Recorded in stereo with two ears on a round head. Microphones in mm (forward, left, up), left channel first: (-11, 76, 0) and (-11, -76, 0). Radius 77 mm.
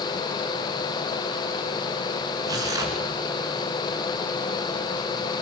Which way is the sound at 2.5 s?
20° right (ahead or behind).